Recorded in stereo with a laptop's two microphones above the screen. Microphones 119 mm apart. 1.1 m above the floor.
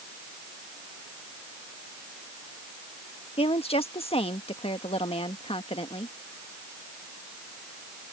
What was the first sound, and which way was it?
A woman speaking, 55° left (ahead or behind).